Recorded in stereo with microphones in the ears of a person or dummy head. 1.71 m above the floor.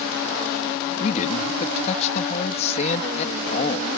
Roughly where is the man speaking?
Left.